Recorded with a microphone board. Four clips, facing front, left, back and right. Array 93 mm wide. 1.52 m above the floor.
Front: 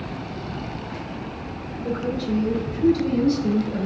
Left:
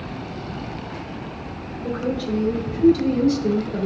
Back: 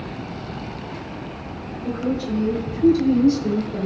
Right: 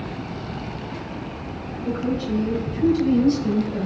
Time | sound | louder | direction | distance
1.8 | a woman speaking | even, back 1 dB | 105° left | 7.5 m